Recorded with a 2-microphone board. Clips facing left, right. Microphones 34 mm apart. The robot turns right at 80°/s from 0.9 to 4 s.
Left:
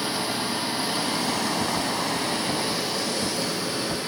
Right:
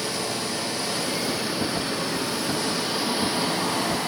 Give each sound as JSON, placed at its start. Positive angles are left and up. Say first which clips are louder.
{"t": 0.0, "sound": "running water", "louder": "left 1 dB", "azimuth_deg": 20, "distance_m": 2.5}